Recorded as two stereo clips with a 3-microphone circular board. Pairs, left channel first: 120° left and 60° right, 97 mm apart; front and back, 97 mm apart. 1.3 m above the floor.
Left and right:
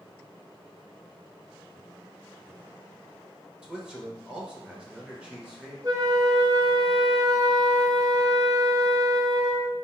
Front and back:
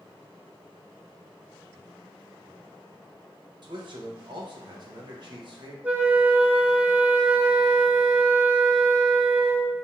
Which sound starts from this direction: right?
A flute, at 5.8 s.